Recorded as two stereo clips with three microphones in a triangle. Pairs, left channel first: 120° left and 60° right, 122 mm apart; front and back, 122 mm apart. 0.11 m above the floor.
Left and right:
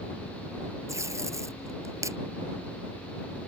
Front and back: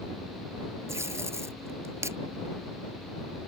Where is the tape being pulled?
120° right.